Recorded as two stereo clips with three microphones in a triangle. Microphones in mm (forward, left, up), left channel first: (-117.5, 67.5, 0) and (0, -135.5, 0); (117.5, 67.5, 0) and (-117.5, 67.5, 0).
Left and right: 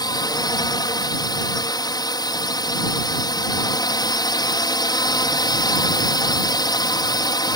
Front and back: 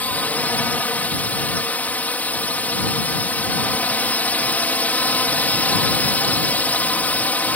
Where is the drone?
75° left.